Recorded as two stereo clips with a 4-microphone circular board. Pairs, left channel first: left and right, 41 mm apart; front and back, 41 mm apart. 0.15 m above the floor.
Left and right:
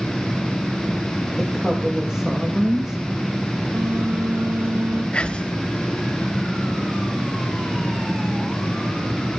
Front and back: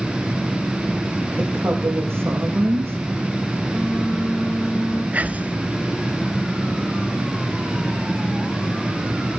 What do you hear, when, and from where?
1.4 s a woman speaking: 165° right, 6.5 m
3.7 s a phone buzzing: 90° right, 6.5 m
5.1 s whispering: 145° left, 1.6 m